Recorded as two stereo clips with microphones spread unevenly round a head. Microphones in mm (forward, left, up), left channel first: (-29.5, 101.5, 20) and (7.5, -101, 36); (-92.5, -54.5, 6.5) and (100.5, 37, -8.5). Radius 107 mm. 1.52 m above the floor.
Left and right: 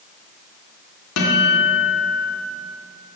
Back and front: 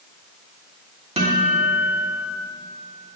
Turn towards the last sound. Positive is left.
turn(degrees=90)